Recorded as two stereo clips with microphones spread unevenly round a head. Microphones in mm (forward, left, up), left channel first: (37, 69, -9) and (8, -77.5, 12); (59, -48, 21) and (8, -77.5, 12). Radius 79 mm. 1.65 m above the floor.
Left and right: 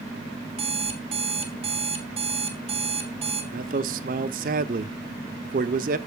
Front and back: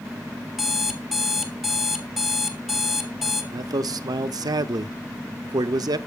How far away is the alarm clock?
About 2 m.